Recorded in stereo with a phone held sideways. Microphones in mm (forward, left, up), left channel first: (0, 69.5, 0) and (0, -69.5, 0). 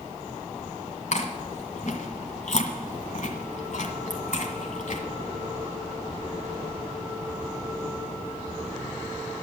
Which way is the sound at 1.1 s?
60° left (ahead or behind).